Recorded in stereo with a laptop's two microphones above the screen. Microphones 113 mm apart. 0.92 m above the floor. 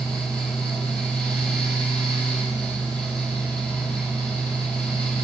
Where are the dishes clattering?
I don't hear dishes clattering.